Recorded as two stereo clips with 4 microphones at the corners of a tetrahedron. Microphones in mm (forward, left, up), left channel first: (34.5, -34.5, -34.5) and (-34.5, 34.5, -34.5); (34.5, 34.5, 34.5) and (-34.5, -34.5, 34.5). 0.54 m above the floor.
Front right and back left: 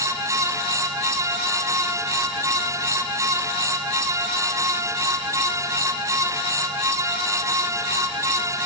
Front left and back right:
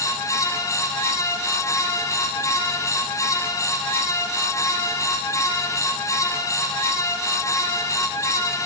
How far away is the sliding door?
No sliding door in this recording.